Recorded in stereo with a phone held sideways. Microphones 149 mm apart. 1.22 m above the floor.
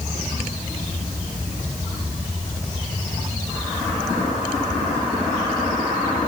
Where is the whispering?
I don't hear whispering.